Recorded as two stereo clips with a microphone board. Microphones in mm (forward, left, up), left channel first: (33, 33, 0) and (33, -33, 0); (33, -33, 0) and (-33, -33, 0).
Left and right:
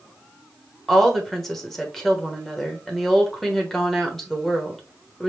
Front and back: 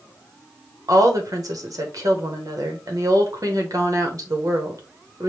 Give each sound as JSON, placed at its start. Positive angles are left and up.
{"t": 0.9, "sound": "a woman speaking", "azimuth_deg": 175, "distance_m": 1.2}